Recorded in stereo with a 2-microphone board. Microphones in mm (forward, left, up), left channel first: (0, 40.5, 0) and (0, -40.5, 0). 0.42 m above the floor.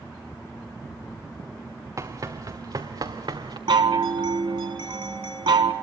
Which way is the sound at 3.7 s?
85° right.